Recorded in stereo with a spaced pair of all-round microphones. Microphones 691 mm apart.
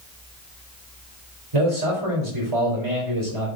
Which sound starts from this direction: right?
A man speaking, at 1.5 s.